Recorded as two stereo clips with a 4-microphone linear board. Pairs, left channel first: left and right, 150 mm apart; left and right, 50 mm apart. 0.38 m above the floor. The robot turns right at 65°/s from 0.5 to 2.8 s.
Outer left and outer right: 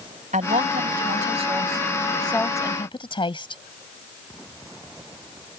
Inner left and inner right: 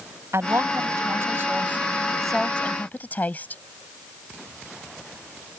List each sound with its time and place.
0.3 s a woman speaking: 110° right; by 3.6 s 40° left